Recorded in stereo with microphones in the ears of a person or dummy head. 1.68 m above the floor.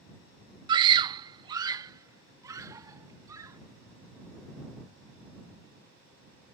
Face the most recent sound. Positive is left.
turn(degrees=-20)  # may be behind; listen again after turning